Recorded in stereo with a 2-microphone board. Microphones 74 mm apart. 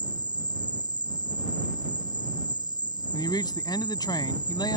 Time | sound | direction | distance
0.0 | an insect | 80° right | ?
3.1 | a man speaking | 70° left (ahead or behind) | ?